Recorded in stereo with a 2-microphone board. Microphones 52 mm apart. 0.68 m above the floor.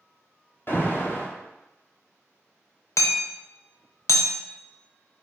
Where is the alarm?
40° left (ahead or behind), 0.8 m.